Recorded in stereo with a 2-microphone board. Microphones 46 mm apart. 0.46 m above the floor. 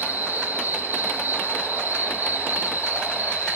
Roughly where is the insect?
Right.